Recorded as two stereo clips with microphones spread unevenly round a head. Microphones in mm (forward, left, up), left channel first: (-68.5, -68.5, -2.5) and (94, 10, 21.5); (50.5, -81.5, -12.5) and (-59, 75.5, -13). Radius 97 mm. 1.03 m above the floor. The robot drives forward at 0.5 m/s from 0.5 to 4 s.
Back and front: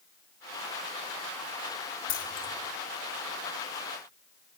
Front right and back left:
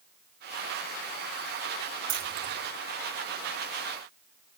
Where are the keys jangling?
150° left, 1.7 m; by 2.5 s 155° left, 1.9 m.